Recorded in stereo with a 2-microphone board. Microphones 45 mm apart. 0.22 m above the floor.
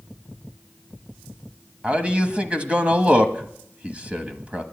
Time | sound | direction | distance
1.8 | a man speaking | 30° right (ahead or behind) | 1.0 m